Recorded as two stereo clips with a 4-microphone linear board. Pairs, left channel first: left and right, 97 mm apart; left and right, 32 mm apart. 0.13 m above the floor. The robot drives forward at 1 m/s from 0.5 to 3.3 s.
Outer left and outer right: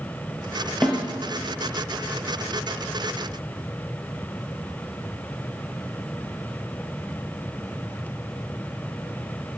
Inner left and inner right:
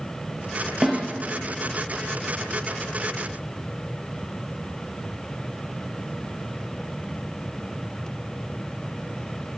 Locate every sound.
0.8 s a snare drum: 10° left (ahead or behind), 2.5 m